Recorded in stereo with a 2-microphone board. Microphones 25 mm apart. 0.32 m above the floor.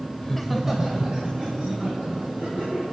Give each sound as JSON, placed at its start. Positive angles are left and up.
{"t": 0.2, "sound": "laughter", "side_deg": 20, "distance_m": 1.0}